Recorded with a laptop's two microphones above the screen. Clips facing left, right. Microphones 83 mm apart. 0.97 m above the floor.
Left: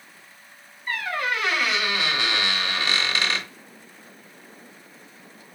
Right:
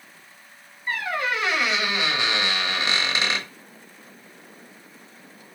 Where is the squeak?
25° right (ahead or behind), 0.9 m.